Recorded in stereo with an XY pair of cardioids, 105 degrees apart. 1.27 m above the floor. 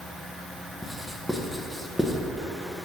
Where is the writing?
5° left, 1.0 m.